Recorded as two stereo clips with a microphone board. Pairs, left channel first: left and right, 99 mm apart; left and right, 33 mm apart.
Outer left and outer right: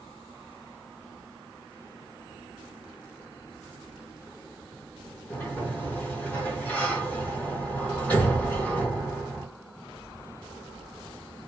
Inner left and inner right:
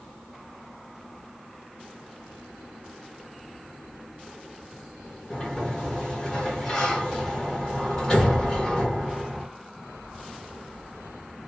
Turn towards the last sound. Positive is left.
turn(degrees=20)  # may be behind; listen again after turning